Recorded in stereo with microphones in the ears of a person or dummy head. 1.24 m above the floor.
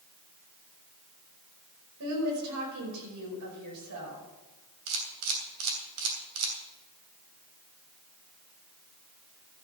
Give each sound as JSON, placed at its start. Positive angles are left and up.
{"t": 2.0, "sound": "a woman speaking", "side_deg": -80, "distance_m": 5.0}
{"t": 4.9, "sound": "a camera shutter", "side_deg": -80, "distance_m": 3.0}